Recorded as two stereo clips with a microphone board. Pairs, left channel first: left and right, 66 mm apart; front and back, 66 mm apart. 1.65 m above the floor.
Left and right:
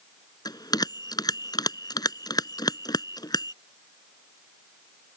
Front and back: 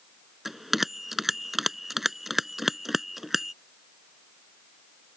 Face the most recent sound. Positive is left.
turn(degrees=95)